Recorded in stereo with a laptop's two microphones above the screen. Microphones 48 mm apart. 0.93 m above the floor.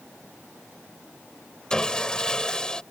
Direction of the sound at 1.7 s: 15° left (ahead or behind).